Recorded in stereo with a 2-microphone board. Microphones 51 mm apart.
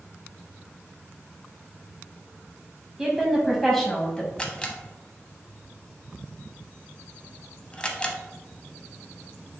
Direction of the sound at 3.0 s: 10° right (ahead or behind).